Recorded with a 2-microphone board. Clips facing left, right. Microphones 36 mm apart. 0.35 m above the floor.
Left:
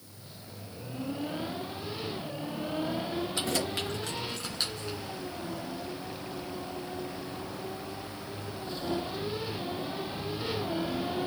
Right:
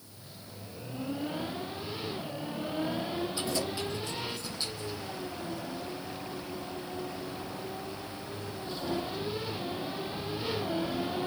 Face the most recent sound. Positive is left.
turn(degrees=75)  # may be behind; listen again after turning